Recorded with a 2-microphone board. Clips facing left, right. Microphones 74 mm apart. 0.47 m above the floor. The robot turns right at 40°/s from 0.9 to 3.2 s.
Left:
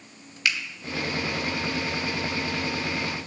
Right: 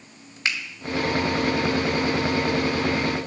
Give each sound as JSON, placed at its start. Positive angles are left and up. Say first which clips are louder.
{"t": 0.5, "sound": "a finger snap", "louder": "even", "side_deg": -30, "distance_m": 1.1}